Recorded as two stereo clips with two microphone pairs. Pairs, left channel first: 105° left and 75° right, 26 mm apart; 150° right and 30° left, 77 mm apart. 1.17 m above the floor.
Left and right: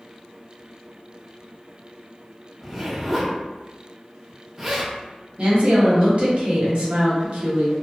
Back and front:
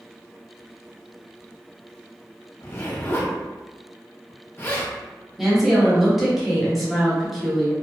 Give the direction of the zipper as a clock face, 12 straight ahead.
5 o'clock.